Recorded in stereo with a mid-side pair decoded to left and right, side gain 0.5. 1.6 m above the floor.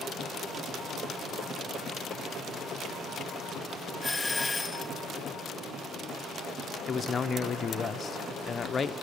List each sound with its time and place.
4.0 s a doorbell: 10° left, 0.9 m
6.9 s a man speaking: 35° left, 0.8 m